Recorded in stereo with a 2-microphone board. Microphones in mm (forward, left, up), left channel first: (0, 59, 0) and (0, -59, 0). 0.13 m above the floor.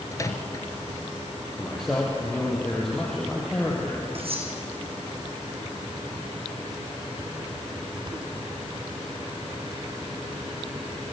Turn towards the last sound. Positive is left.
turn(degrees=-55)  # may be behind; listen again after turning